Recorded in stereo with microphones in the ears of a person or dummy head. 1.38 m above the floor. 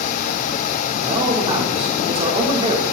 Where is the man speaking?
25° right (ahead or behind), 3.5 m.